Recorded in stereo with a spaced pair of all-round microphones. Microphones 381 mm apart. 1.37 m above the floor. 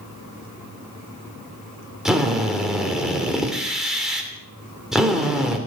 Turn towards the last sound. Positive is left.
turn(degrees=0)  # may be behind; listen again after turning